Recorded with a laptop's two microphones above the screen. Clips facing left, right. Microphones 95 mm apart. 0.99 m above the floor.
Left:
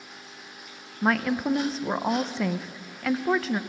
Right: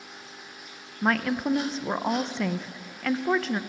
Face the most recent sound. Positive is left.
turn(degrees=5)  # may be behind; listen again after turning